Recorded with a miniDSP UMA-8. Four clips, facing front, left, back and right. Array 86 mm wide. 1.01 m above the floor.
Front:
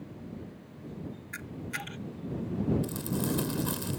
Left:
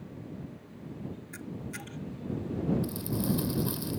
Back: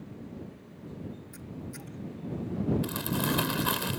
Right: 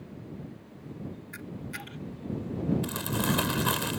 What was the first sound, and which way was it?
A camera shutter, 10° right.